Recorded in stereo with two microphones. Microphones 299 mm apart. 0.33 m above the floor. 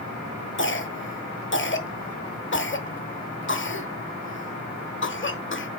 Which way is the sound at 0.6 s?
40° left (ahead or behind).